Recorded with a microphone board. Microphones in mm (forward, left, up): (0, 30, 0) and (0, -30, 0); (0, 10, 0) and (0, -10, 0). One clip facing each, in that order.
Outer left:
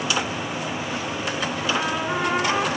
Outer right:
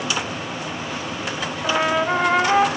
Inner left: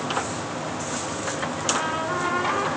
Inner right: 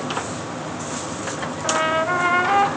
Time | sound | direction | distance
1.6 | a trumpet | 65° right (ahead or behind) | 1.3 m